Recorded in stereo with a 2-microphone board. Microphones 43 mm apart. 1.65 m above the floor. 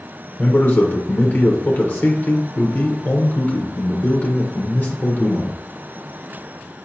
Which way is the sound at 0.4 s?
35° left (ahead or behind).